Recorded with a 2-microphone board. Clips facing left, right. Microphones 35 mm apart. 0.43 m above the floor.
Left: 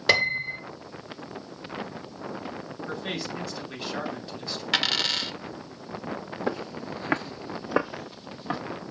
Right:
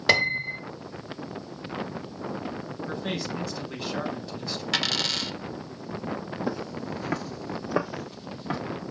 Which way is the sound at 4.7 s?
10° left (ahead or behind).